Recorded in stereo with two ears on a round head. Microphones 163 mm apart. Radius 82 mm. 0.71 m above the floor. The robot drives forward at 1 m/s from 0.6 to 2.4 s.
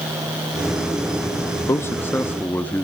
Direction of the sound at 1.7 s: 15° left (ahead or behind).